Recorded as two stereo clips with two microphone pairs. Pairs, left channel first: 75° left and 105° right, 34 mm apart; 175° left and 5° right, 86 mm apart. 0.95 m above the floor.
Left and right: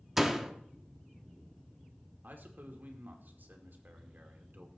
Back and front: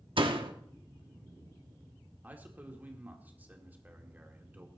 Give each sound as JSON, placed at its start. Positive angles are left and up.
{"t": 0.2, "sound": "a door slam", "azimuth_deg": -20, "distance_m": 1.1}
{"t": 2.2, "sound": "a man speaking", "azimuth_deg": -75, "distance_m": 2.0}